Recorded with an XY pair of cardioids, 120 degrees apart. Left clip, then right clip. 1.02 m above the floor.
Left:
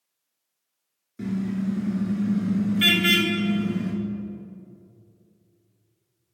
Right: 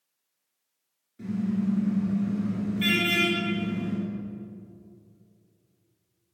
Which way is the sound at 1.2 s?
60° left.